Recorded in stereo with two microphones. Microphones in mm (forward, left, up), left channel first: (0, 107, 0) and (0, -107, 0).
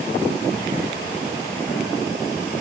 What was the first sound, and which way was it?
Only background noise.